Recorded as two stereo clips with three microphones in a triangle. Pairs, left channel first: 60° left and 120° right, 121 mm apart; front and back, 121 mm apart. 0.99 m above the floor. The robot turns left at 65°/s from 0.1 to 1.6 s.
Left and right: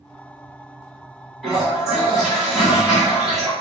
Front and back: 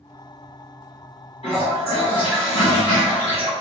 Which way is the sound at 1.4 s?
25° right.